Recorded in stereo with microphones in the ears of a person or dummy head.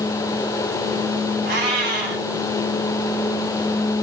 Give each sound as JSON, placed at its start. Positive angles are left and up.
{"t": 1.4, "sound": "a cat meowing", "side_deg": -45, "distance_m": 1.4}